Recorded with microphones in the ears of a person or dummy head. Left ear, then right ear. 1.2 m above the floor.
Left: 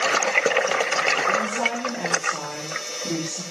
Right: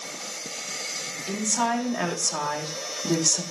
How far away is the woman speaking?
About 2 m.